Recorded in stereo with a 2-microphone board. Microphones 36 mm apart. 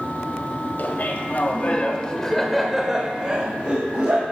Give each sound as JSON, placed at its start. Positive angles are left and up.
{"t": 0.8, "sound": "laughter", "side_deg": 55, "distance_m": 1.8}